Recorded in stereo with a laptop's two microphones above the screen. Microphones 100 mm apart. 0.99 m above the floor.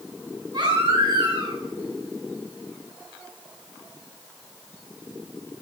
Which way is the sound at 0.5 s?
45° right (ahead or behind).